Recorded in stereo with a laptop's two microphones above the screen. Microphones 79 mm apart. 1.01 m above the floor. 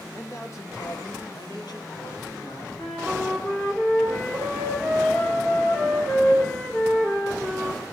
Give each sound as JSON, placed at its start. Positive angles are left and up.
{"t": 0.1, "sound": "a man speaking", "side_deg": 35, "distance_m": 1.8}
{"t": 2.8, "sound": "a flute", "side_deg": 25, "distance_m": 1.8}